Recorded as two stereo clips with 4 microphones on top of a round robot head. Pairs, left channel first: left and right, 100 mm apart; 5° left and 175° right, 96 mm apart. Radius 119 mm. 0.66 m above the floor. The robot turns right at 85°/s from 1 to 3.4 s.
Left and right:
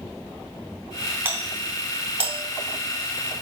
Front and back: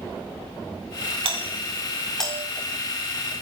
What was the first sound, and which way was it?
A doorbell, 160° right.